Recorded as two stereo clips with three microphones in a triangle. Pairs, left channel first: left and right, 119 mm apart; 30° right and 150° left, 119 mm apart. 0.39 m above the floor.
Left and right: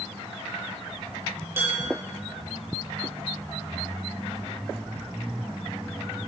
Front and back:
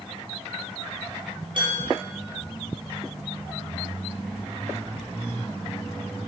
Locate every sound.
1.6 s dishes clattering: 160° right, 6.5 m